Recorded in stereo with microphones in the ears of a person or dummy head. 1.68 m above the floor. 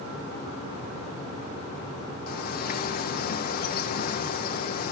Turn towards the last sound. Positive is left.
turn(degrees=40)  # may be behind; listen again after turning